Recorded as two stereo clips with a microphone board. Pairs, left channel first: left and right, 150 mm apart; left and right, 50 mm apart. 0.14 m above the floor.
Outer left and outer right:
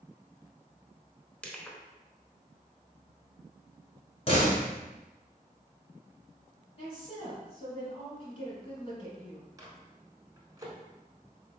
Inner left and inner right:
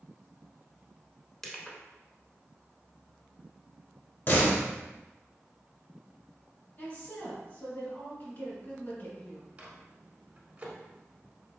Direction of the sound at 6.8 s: 40° left (ahead or behind).